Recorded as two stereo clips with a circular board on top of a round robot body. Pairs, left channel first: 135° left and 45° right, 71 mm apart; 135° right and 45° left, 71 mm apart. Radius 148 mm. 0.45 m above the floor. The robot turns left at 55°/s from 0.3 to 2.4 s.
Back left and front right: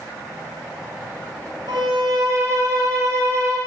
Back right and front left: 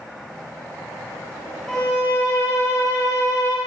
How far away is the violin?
About 1.9 m.